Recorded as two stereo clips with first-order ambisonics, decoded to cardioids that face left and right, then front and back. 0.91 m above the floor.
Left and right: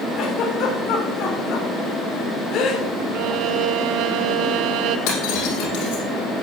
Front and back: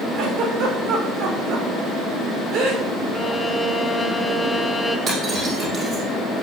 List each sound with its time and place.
0.2 s a giggle: 140° left, 3 m
3.1 s a violin: 80° right, 1.1 m
5.1 s breaking glass: 115° left, 5 m